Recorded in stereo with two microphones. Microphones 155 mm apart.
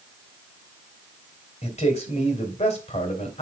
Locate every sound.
1.6 s a man speaking: 45° left (ahead or behind), 3 m